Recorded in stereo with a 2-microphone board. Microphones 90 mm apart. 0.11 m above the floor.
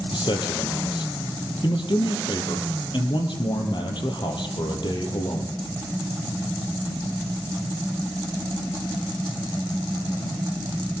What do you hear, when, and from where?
0.1 s a man speaking: 60° left (ahead or behind), 3 m